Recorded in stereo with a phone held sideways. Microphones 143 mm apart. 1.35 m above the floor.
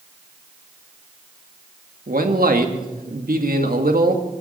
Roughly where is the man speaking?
Right.